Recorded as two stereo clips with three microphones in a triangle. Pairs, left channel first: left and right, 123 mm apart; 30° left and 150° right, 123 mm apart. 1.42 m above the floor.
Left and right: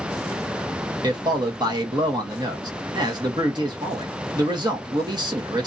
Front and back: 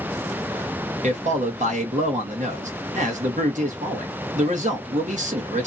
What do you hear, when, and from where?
1.0 s a man speaking: 145° right, 0.9 m